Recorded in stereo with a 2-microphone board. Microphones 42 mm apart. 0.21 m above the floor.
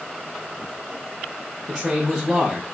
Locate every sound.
1.7 s a man speaking: 15° right (ahead or behind), 4 m